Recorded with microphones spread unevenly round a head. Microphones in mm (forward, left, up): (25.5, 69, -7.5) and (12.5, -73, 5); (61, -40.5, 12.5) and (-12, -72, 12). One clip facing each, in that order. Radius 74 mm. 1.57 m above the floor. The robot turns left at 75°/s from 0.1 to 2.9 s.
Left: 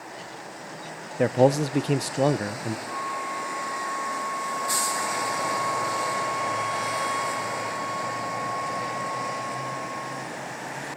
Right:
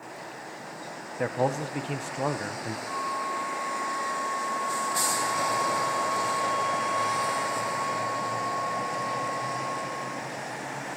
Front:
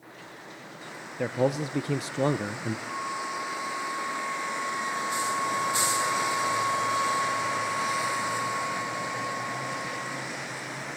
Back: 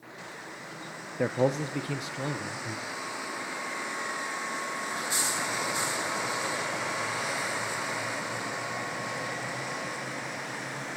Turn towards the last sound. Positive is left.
turn(degrees=10)